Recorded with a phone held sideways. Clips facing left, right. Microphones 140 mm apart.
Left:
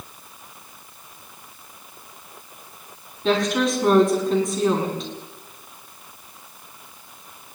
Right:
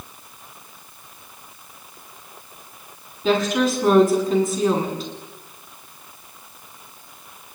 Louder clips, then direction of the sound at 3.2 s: Right 1 dB; centre (ahead or behind).